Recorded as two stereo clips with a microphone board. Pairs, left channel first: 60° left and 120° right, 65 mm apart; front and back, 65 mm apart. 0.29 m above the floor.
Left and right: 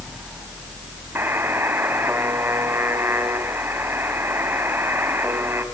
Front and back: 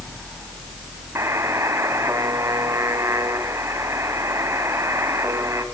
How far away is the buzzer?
About 2.5 m.